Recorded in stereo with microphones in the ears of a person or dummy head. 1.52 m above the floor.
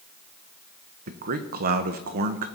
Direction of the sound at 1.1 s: 40° right (ahead or behind).